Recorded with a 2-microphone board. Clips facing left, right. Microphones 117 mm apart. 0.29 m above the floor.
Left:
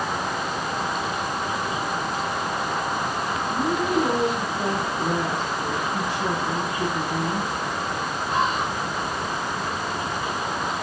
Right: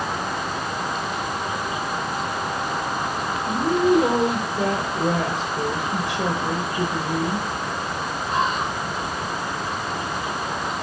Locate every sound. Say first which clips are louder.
3.5 s a woman speaking: right 7 dB; 80° right, 5.5 m